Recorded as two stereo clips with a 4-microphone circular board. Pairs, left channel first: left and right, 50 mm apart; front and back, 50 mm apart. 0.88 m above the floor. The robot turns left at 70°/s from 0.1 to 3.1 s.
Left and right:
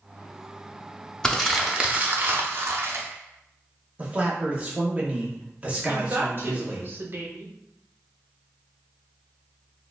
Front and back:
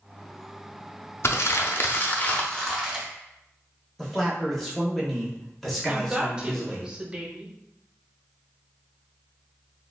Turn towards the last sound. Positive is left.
turn(degrees=-115)